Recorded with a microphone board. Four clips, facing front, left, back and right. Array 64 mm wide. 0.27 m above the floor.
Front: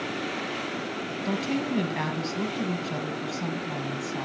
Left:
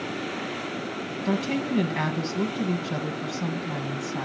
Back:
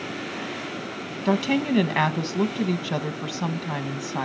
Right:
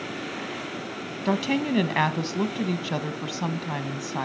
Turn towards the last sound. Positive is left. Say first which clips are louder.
# right 2 dB, back 7 dB
turn(degrees=-135)